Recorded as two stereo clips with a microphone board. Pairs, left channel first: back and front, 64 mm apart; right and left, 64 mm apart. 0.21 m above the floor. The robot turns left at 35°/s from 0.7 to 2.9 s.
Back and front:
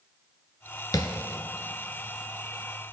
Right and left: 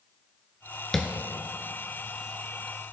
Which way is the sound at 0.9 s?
175° right.